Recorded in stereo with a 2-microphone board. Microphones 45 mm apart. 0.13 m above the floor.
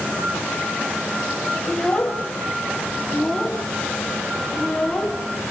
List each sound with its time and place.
1.7 s a child speaking: 15° left (ahead or behind), 3 m